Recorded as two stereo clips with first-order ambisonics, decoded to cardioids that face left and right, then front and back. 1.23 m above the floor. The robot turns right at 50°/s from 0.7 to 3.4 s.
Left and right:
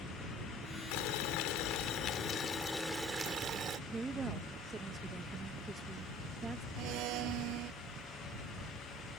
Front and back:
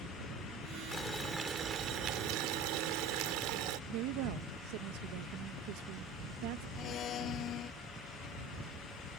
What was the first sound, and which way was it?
Boiling, 80° left.